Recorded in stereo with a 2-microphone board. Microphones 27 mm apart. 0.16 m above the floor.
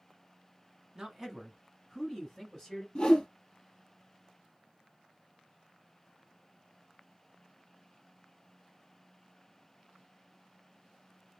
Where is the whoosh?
25° left (ahead or behind), 1.6 m.